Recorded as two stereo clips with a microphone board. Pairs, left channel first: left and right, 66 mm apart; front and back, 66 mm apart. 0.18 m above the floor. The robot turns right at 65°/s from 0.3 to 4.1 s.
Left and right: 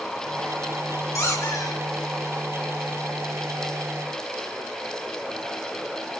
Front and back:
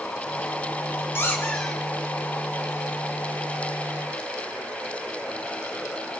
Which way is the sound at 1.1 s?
50° left.